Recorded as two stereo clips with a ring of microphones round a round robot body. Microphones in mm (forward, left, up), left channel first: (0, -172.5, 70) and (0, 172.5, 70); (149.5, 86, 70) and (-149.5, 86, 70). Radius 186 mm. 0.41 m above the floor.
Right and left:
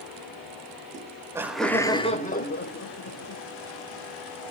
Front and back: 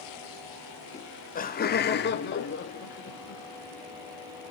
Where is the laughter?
45° left, 1.0 m; by 3.4 s 50° right, 1.5 m.